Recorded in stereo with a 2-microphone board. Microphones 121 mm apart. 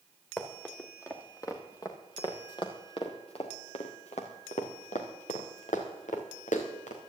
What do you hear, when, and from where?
0.4 s running footsteps: 15° left (ahead or behind), 3 m; by 7.1 s 80° left, 3.5 m